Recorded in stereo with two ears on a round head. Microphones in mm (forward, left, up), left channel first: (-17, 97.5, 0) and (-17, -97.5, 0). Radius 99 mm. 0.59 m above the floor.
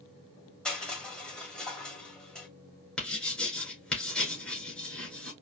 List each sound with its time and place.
0.7 s crushing: 5° left (ahead or behind), 1.8 m
3.0 s writing: 5° left (ahead or behind), 1.9 m